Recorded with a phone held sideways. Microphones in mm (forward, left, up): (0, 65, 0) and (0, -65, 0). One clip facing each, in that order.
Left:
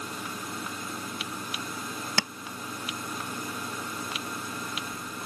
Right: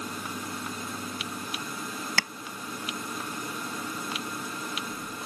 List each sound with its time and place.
2.2 s tapping: 25° left (ahead or behind)